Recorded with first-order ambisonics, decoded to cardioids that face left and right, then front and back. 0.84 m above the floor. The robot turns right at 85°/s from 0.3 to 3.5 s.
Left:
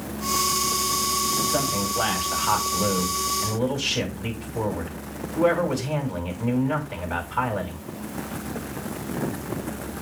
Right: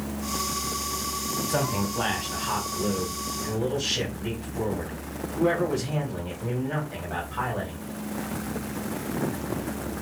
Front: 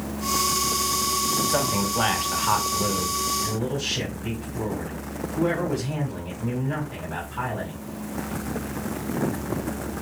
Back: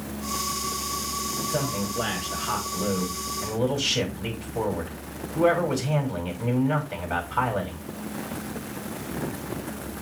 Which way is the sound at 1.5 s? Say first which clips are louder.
Left 3 dB, front 4 dB; 15° right.